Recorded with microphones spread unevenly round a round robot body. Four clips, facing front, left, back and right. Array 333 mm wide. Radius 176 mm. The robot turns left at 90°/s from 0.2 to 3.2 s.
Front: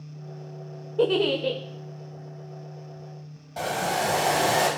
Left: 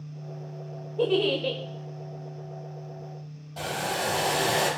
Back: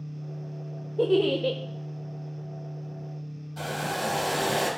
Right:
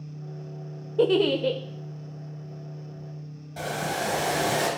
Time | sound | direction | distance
1.0 | a giggle | 75° right | 0.6 m
3.6 | boiling | 5° left | 4 m